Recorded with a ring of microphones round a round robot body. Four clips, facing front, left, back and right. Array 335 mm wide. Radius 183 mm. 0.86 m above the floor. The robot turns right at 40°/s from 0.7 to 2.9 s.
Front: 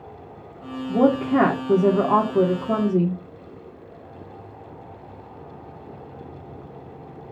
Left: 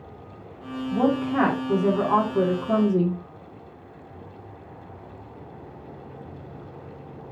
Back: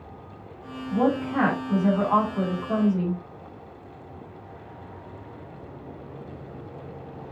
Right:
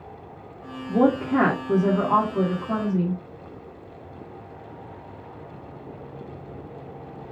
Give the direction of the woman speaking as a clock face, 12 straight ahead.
2 o'clock.